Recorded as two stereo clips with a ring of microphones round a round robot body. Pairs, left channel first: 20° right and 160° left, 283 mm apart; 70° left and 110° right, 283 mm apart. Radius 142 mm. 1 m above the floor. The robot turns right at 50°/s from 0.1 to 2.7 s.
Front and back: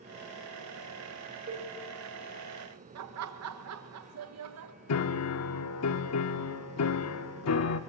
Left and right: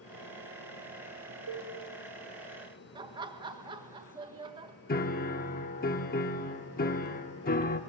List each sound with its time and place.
1.5 s a cowbell: 145° right, 5 m; by 1.7 s 135° right, 5 m
3.0 s laughter: 175° left, 1.2 m
4.9 s a piano: 10° left, 0.9 m